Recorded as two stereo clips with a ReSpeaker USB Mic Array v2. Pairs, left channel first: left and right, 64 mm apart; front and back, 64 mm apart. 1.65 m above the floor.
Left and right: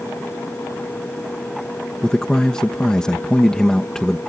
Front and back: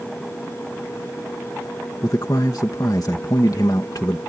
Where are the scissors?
No scissors in this recording.